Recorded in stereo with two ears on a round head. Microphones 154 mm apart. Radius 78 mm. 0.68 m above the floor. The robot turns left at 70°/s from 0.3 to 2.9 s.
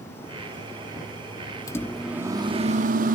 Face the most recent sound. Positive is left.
turn(degrees=-65)